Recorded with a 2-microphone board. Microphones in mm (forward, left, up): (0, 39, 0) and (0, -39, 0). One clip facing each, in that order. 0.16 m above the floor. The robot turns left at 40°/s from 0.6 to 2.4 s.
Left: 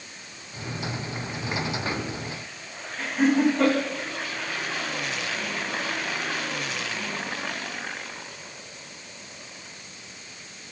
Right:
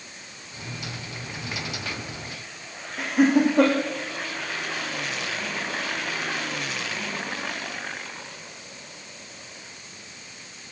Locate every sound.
3.0 s laughter: 80° right, 7 m